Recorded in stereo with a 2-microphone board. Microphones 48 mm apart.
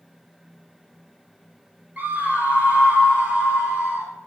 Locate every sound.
2.0 s a scream: 35° right (ahead or behind), 2 m; by 4.1 s 25° right (ahead or behind), 3 m